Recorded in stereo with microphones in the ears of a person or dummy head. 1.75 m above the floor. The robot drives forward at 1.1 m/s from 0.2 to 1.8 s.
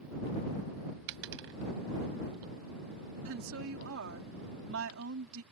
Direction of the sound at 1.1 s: 70° right (ahead or behind).